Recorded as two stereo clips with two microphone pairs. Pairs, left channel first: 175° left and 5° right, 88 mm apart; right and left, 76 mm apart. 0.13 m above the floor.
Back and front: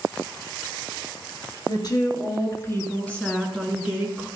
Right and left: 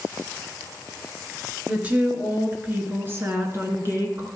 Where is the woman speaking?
155° left, 2.5 m; by 4.3 s 50° left, 2 m.